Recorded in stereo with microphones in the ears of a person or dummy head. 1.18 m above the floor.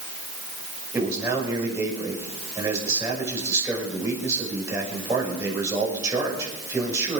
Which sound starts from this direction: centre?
A man speaking, at 0.9 s.